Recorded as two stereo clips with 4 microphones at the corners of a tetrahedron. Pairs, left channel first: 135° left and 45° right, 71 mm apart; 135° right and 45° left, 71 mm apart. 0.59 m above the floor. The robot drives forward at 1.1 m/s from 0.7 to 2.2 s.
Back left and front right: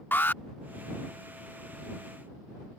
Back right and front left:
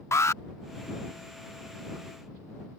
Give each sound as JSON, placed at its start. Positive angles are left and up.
{"t": 0.1, "sound": "an alarm", "azimuth_deg": -170}